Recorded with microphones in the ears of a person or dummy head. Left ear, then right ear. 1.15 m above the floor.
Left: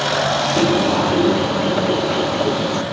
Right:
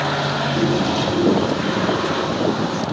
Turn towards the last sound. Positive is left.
turn(degrees=15)  # may be behind; listen again after turning